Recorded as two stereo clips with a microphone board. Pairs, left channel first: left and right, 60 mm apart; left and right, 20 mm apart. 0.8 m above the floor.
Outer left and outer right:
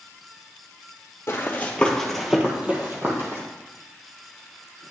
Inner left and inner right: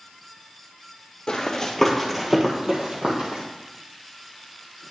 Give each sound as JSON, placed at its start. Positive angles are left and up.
{"t": 1.3, "sound": "running footsteps", "side_deg": 40, "distance_m": 1.4}